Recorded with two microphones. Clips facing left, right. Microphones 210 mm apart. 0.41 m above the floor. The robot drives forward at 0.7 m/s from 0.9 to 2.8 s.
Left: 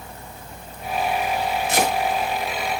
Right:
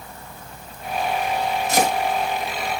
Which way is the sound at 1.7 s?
40° right (ahead or behind).